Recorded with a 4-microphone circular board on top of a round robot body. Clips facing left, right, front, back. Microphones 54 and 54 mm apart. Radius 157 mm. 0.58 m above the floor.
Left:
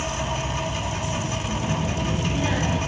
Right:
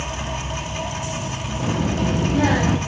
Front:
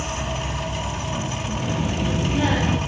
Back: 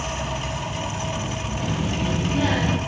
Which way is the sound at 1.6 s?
80° right.